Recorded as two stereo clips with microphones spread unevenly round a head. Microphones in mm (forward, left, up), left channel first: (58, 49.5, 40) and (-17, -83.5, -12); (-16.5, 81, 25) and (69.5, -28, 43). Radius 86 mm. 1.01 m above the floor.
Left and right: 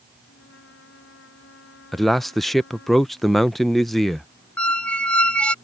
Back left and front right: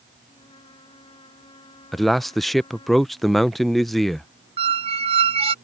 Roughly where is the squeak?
Ahead.